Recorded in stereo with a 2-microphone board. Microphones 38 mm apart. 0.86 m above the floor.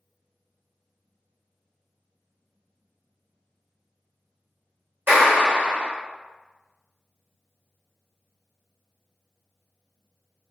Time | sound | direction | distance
5.1 | a clap | 70° right (ahead or behind) | 1.4 m